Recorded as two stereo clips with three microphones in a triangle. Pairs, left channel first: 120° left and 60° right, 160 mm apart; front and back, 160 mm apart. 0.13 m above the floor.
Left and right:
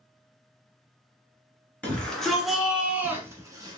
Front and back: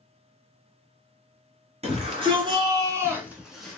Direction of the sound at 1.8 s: 160° right.